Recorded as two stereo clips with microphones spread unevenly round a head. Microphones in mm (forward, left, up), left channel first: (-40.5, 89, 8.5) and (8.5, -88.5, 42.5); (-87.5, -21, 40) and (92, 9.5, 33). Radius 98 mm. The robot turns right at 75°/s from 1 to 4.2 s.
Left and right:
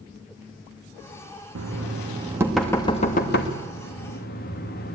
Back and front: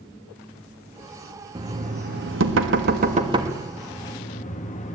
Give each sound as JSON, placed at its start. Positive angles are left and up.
{"t": 1.6, "sound": "knocking", "azimuth_deg": -60, "distance_m": 2.0}